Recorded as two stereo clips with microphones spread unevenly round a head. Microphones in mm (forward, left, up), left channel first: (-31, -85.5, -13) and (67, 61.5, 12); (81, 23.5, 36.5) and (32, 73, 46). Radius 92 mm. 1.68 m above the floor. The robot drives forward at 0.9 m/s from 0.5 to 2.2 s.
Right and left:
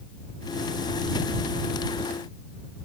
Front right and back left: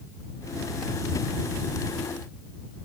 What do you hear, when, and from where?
Only background noise.